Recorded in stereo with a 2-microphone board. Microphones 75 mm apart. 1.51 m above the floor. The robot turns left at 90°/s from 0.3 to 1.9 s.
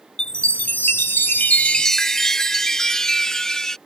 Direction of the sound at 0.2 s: 10° left (ahead or behind).